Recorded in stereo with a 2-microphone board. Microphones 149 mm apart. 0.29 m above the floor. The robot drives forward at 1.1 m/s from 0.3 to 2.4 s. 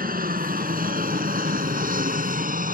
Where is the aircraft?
70° right (ahead or behind); by 2.8 s 65° right (ahead or behind).